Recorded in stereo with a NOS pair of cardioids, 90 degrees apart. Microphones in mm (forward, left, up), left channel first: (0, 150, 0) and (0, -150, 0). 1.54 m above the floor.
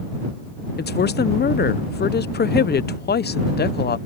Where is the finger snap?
No finger snap in this recording.